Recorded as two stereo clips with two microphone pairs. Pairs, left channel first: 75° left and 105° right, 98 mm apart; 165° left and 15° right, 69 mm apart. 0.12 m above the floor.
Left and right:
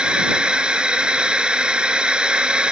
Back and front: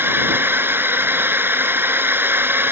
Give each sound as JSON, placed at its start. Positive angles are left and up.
{"t": 0.0, "sound": "a drone", "azimuth_deg": -35}